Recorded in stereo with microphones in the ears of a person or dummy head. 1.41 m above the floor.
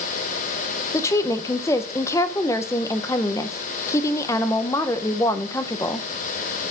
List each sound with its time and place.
0.9 s a woman speaking: 15° left (ahead or behind), 0.7 m